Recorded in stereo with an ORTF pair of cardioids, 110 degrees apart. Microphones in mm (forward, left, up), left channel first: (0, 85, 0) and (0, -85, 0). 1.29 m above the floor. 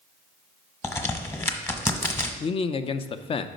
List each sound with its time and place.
0.8 s a crack: 15° left, 1.1 m
2.4 s a man speaking: 35° left, 0.5 m